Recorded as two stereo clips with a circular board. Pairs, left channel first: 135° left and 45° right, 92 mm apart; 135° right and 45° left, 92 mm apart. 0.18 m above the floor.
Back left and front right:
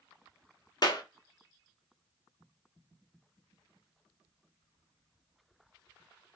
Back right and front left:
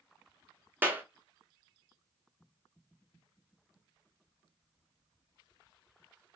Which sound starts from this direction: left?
A clap, at 0.8 s.